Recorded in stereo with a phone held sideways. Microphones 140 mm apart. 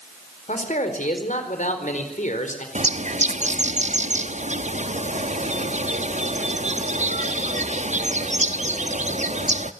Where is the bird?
55° right (ahead or behind), 1.0 m.